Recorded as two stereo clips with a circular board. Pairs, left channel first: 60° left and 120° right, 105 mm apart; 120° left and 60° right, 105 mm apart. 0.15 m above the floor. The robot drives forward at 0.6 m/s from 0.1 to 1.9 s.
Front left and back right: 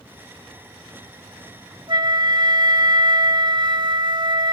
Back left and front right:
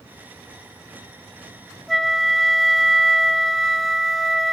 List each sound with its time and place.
1.9 s a flute: 150° right, 0.5 m